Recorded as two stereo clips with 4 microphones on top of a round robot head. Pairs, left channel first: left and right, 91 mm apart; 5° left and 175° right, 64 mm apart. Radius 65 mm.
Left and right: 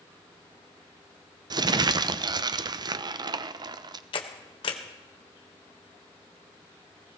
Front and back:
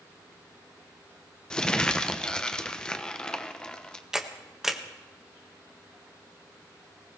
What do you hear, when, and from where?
1.5 s crumpling: 70° right, 0.6 m
4.1 s a camera shutter: 105° left, 1.5 m